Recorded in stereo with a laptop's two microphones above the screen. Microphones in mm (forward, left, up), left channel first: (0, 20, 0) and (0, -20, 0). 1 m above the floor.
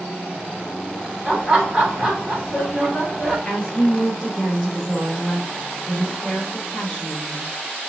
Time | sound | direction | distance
1.2 | laughter | 10° right (ahead or behind) | 2.5 m
3.5 | a woman speaking | 10° left (ahead or behind) | 3.5 m